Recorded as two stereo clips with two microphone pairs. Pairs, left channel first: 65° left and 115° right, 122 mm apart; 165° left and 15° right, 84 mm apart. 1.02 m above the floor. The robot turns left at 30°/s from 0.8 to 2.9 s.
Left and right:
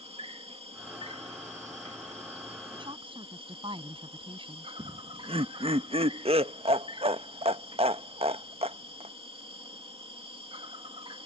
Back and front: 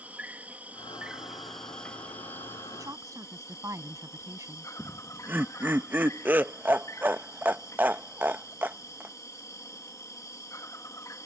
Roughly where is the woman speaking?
Ahead right.